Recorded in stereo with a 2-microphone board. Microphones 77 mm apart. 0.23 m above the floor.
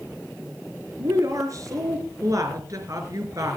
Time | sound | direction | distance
1.0 | a woman speaking | 50° right (ahead or behind) | 4 m